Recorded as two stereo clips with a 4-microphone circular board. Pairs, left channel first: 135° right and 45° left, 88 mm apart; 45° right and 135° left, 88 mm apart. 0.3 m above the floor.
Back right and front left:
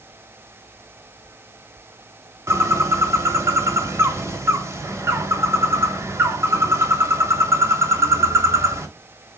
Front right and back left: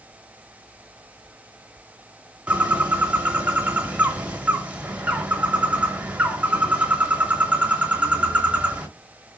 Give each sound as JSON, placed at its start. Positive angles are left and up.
{"t": 2.5, "sound": "a bird", "azimuth_deg": 70, "distance_m": 0.7}